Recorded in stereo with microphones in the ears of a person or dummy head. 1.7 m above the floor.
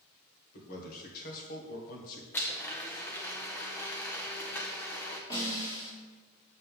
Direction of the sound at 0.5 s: 50° left (ahead or behind).